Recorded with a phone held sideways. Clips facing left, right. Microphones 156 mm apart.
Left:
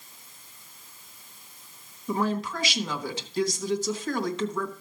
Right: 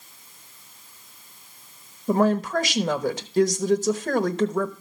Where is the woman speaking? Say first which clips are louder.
Right 7 dB; 50° right (ahead or behind), 1.0 m.